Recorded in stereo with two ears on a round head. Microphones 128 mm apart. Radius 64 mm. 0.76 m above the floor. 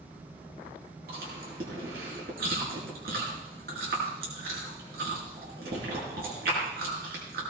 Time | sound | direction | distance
1.1 | chewing | 75° right (ahead or behind) | 5.5 m